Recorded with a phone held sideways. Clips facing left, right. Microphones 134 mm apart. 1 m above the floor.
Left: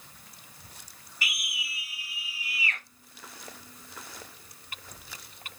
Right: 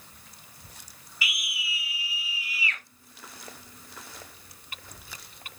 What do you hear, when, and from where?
1.2 s a scream: 50° left (ahead or behind), 2 m